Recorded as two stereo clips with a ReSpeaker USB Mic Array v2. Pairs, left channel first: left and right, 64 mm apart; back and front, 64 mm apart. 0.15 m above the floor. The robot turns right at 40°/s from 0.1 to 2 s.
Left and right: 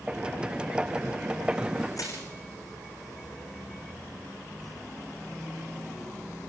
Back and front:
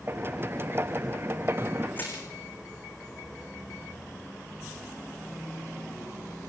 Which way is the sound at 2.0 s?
115° left.